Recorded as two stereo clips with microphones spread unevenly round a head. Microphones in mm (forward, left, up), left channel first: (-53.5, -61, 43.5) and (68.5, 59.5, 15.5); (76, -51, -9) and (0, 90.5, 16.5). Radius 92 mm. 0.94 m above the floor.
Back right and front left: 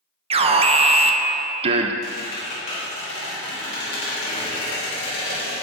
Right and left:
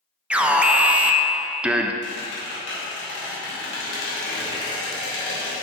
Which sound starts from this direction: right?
A squeak, at 2.0 s.